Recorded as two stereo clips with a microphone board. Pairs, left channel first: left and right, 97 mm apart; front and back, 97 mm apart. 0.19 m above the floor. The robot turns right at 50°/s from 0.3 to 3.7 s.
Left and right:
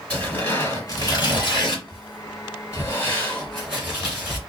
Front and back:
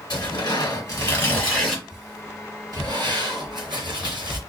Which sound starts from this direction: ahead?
Tearing paper, at 0.1 s.